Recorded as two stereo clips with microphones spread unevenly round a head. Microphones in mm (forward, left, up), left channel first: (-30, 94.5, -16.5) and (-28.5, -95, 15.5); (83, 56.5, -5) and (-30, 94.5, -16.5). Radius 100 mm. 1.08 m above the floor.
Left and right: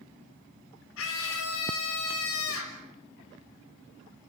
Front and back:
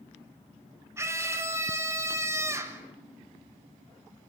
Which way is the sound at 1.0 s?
95° left.